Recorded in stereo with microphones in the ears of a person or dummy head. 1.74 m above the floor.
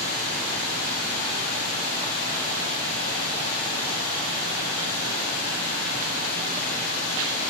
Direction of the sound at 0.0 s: 60° left (ahead or behind).